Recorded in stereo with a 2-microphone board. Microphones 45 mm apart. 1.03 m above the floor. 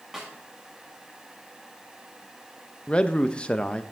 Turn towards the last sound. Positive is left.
turn(degrees=25)  # may be behind; listen again after turning